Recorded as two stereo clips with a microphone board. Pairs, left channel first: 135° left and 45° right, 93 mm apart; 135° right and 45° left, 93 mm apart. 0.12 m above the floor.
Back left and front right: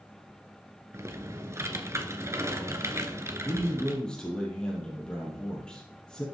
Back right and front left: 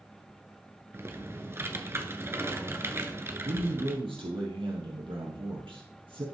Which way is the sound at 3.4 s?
55° left.